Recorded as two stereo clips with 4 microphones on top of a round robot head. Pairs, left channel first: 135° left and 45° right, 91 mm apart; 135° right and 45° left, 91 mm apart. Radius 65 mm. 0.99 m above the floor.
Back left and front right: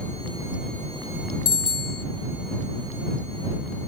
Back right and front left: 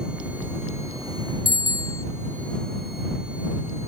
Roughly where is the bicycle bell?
Behind.